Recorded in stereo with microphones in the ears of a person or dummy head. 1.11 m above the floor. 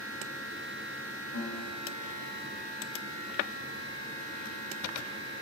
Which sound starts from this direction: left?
A guitar, at 1.3 s.